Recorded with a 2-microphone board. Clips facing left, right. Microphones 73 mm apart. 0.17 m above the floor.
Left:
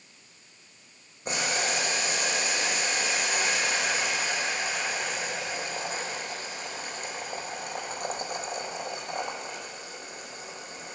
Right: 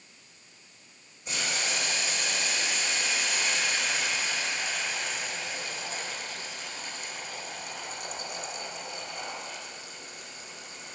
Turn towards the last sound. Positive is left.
turn(degrees=55)  # may be behind; listen again after turning